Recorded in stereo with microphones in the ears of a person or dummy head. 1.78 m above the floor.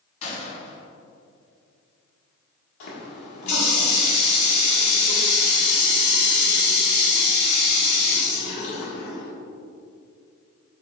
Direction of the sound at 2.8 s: 50° left (ahead or behind).